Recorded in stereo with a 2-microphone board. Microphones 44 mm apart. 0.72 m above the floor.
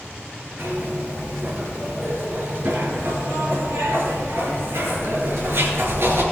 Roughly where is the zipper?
Right.